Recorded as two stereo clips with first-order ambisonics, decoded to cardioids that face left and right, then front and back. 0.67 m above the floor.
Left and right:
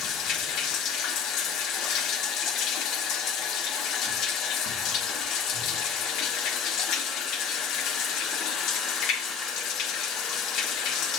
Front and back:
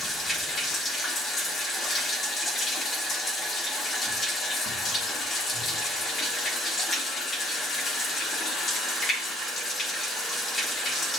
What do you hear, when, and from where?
0.0 s running water: 65° left, 1.3 m